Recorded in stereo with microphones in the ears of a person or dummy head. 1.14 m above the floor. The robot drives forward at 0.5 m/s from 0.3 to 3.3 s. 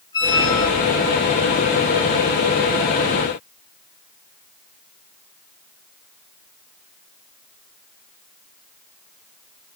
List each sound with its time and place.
0.1 s a squeak: 25° left (ahead or behind), 8 m